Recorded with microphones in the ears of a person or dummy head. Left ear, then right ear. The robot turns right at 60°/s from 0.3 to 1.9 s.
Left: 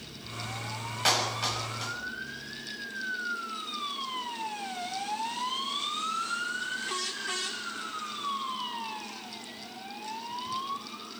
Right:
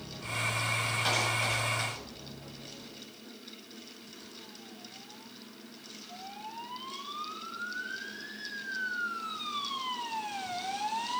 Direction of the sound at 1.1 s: 30° left (ahead or behind).